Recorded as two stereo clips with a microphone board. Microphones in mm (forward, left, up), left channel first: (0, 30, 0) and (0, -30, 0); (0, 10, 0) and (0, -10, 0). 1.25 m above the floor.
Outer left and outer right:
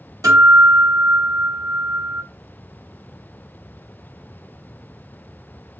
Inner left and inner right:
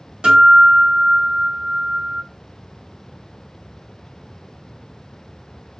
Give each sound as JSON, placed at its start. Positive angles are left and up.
{"t": 0.2, "sound": "a guitar", "side_deg": -85, "distance_m": 2.0}